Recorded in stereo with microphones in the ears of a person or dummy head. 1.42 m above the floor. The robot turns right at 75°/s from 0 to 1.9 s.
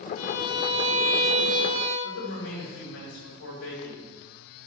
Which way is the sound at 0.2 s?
95° left.